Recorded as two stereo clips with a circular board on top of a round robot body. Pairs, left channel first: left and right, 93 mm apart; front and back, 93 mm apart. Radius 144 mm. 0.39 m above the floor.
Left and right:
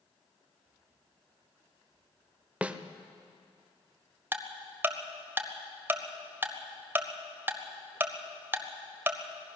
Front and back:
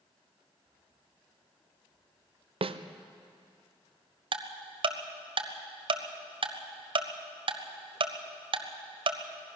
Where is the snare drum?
165° right, 0.8 m.